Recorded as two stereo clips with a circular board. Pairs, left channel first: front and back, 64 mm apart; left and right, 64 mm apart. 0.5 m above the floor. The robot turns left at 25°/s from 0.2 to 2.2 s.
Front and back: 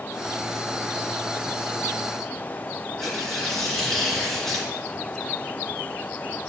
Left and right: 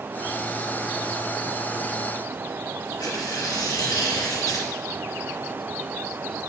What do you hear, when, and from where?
3.0 s tearing paper: 85° left, 2.5 m